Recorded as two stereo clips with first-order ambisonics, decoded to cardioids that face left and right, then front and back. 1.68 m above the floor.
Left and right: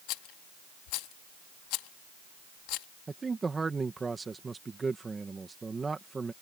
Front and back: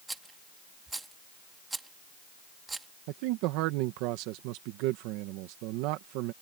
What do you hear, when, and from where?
0.1 s a rattle: 100° left
3.1 s a man speaking: 165° right